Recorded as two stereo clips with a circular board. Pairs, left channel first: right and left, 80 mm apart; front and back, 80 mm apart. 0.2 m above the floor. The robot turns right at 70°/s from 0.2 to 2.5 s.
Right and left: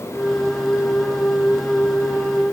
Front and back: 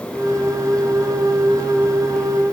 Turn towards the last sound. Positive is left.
No sound to turn to.